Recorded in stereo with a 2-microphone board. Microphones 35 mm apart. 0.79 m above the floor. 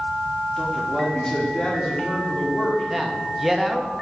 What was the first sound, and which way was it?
A man speaking, 25° left (ahead or behind).